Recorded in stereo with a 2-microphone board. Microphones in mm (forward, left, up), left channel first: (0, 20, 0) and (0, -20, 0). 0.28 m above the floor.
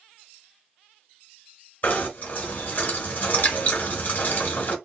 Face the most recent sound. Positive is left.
turn(degrees=45)  # may be behind; listen again after turning